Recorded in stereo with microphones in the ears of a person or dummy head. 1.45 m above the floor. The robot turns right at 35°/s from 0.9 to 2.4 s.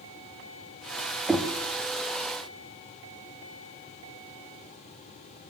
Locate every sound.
1.3 s knocking: centre (ahead or behind), 0.7 m; by 1.5 s 5° right (ahead or behind), 0.7 m